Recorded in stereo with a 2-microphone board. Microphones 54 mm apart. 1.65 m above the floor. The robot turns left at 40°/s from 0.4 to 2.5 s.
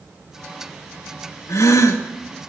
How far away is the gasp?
About 2.5 m.